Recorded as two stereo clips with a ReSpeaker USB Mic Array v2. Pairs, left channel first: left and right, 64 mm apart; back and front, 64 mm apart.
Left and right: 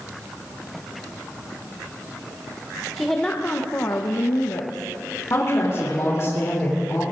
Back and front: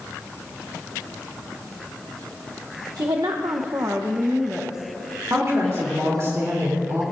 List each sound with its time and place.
3.0 s a woman speaking: straight ahead, 1.0 m; by 6.3 s 105° left, 2.5 m
5.3 s a woman speaking: 45° left, 3 m